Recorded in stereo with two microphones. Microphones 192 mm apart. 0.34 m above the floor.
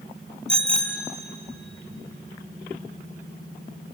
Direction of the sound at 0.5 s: 5° left (ahead or behind).